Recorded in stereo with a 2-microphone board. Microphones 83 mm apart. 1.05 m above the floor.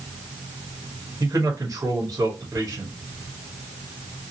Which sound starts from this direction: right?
A man speaking, at 1.2 s.